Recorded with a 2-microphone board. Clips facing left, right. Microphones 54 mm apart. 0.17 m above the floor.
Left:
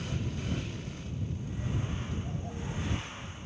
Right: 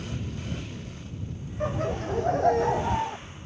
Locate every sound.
1.6 s laughter: 75° right (ahead or behind); by 3.2 s 80° right